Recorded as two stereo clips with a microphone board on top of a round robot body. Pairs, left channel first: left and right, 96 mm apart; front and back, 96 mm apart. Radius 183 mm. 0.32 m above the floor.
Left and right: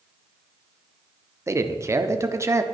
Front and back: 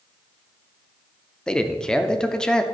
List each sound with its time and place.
1.5 s a man speaking: 75° right, 0.9 m